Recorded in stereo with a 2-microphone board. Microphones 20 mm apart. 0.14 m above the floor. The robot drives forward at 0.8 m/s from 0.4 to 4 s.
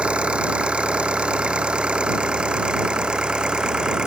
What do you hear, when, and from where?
0.0 s an engine running: 80° right; by 4.1 s 50° right (ahead or behind)